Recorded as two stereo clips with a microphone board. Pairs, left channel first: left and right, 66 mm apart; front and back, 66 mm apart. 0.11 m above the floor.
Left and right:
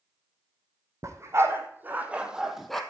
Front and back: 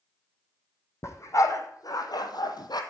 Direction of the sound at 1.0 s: 45° right.